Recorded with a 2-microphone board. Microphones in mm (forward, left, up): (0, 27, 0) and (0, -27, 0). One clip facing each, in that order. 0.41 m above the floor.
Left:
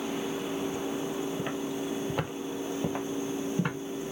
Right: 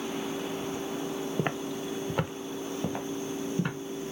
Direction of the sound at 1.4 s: 50° right (ahead or behind).